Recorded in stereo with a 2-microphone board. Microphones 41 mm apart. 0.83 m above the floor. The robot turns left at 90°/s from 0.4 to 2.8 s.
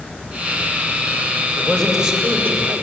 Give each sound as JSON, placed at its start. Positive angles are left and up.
{"t": 1.6, "sound": "a man speaking", "azimuth_deg": 35, "distance_m": 5.5}